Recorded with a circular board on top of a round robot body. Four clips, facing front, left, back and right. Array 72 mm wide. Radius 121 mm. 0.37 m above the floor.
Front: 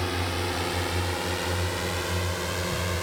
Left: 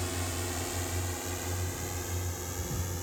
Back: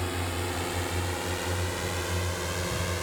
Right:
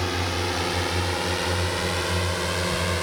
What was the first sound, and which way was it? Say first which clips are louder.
A drone: right 10 dB, front 3 dB; 70° right.